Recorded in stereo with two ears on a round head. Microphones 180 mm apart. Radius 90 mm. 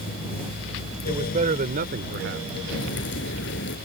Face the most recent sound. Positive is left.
turn(degrees=60)  # may be behind; listen again after turning